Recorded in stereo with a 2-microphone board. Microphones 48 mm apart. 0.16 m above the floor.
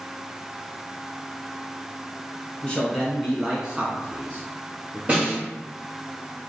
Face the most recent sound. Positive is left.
turn(degrees=-30)  # may be behind; listen again after turning